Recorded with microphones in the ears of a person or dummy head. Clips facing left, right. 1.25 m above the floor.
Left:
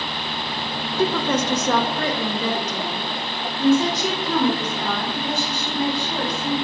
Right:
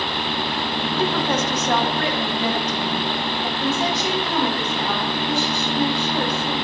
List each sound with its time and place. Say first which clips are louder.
1.0 s a woman speaking: left 2 dB; 80° left, 1.2 m; by 6.5 s 90° left, 5.5 m